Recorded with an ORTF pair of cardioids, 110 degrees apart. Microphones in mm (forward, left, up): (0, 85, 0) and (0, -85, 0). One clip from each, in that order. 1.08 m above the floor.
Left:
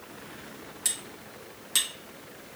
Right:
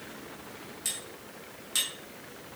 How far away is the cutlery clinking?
About 1.0 m.